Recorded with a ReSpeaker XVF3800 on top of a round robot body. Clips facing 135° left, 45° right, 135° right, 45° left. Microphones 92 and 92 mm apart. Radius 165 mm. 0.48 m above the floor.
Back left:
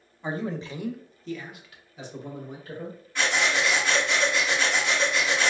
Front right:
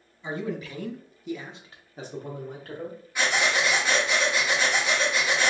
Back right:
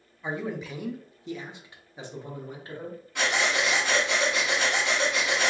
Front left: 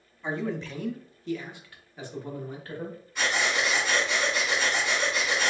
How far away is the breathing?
About 1.0 m.